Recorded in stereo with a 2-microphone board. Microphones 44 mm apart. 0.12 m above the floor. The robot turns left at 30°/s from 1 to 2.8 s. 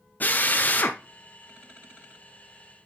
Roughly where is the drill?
Left.